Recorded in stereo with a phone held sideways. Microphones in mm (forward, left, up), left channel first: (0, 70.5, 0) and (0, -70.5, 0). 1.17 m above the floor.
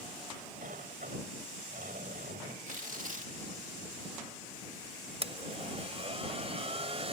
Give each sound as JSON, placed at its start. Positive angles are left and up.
{"t": 0.6, "sound": "a sliding door", "side_deg": -80}
{"t": 2.7, "sound": "tearing paper", "side_deg": -70}
{"t": 5.2, "sound": "a blender", "side_deg": -45}